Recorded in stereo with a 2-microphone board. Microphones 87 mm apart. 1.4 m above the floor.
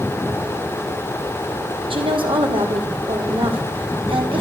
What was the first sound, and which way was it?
A woman speaking, 80° right.